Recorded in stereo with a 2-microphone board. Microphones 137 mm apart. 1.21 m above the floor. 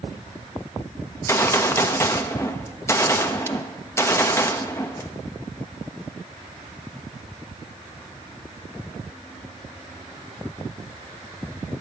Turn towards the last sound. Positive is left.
turn(degrees=20)  # may be behind; listen again after turning